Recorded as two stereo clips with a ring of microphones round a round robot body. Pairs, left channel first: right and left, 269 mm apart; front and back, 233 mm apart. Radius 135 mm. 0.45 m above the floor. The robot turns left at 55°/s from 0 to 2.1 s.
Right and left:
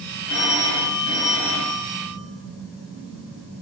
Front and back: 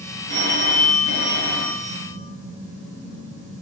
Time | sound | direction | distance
0.3 | a phone ringing | 55° right | 3 m